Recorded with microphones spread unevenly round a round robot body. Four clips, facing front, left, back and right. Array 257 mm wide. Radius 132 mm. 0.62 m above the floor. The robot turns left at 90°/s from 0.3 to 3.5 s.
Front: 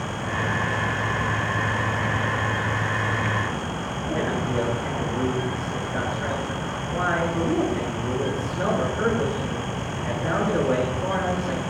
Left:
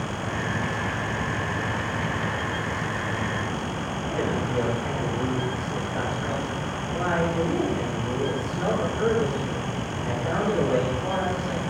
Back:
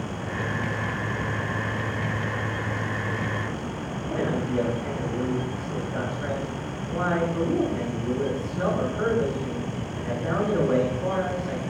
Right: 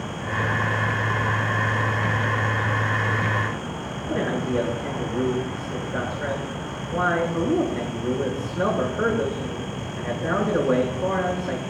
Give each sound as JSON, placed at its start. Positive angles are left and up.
{"t": 4.1, "sound": "a man speaking", "azimuth_deg": -95, "distance_m": 8.0}